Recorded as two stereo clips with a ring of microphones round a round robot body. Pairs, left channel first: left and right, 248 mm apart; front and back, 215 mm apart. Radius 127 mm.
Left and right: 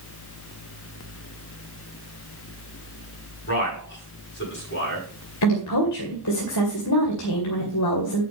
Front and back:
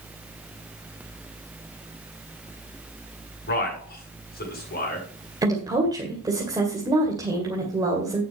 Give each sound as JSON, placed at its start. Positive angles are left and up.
{"t": 3.5, "sound": "a man speaking", "azimuth_deg": 45, "distance_m": 7.5}
{"t": 5.4, "sound": "a woman speaking", "azimuth_deg": 105, "distance_m": 2.5}